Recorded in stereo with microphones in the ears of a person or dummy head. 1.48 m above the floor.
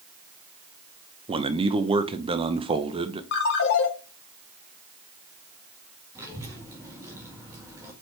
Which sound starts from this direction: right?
A man speaking, at 1.3 s.